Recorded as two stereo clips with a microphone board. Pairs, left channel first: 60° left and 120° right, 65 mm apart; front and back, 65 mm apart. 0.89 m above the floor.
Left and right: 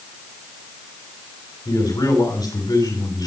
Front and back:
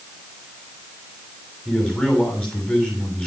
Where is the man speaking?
75° left, 7 m.